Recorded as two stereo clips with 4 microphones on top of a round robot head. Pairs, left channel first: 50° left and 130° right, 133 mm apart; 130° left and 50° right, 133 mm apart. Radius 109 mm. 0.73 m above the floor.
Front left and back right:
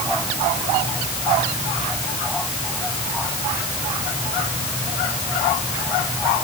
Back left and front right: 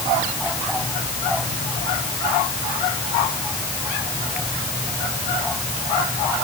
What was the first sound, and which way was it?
Only background noise.